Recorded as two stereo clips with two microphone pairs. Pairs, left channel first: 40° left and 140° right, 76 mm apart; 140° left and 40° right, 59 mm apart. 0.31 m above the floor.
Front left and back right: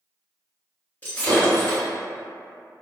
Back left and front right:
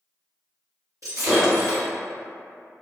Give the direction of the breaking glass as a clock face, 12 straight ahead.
1 o'clock.